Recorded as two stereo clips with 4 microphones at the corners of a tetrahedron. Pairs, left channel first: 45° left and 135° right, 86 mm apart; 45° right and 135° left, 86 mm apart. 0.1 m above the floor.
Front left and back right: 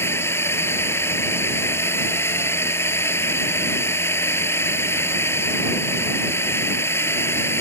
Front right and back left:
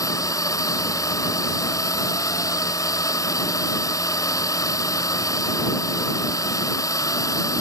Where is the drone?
10° right.